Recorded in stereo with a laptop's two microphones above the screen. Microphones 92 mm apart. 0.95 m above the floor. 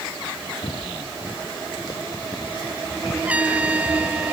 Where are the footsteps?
55° left (ahead or behind); by 4.2 s 45° left (ahead or behind).